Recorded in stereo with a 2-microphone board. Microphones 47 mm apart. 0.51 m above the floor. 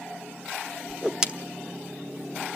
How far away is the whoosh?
About 1.2 m.